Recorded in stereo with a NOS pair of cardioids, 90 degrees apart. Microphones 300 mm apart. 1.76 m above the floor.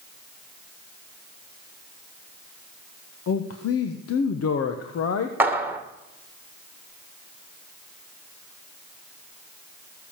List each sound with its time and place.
3.3 s a man speaking: 55° left, 1.4 m
5.4 s a clap: 5° right, 1.9 m